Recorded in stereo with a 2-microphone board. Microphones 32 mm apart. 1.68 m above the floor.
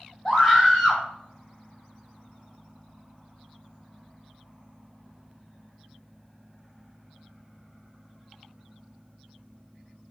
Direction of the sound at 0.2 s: 20° left (ahead or behind).